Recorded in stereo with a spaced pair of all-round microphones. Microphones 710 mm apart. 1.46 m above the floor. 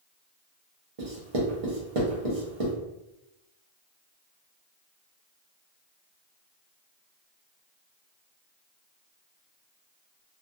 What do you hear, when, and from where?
1.0 s writing: 50° right (ahead or behind), 0.9 m